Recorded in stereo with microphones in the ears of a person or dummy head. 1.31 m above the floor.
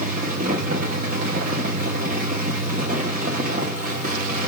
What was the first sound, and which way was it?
A fan, 45° right (ahead or behind).